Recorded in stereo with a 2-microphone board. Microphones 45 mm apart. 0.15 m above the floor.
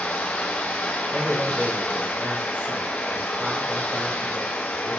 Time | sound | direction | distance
0.0 | running water | 30° left (ahead or behind) | 1.3 m
1.1 | a man speaking | 30° right (ahead or behind) | 4 m